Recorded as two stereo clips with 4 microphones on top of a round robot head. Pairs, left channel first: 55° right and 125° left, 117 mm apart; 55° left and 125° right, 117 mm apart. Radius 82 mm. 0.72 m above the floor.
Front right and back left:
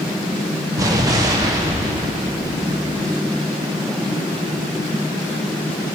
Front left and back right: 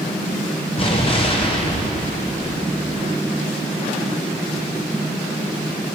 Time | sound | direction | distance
0.8 | an explosion | 75° left | 1.8 m